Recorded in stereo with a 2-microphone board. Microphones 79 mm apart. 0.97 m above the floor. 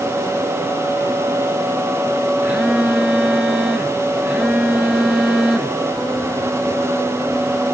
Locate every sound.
2.4 s a phone buzzing: 10° right (ahead or behind), 1.7 m